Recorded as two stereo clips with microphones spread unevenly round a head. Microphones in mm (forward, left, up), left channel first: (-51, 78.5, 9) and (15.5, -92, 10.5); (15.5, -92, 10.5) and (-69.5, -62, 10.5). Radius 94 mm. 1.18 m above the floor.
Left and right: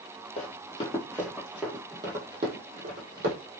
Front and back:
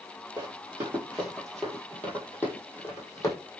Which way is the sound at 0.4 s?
120° left.